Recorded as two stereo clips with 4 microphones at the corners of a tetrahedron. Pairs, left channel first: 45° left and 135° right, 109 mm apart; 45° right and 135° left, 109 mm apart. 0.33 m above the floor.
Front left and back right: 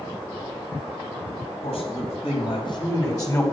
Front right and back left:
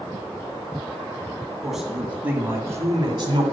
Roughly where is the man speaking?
Ahead left.